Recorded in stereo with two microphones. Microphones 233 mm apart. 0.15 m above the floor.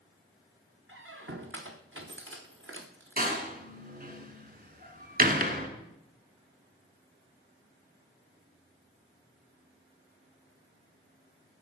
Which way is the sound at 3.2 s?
40° right (ahead or behind).